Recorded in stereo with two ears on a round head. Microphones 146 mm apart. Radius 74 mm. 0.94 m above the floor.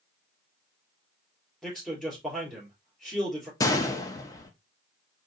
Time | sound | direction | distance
1.6 | a man speaking | 5° left (ahead or behind) | 3 m
3.6 | a gunshot | 20° left (ahead or behind) | 0.7 m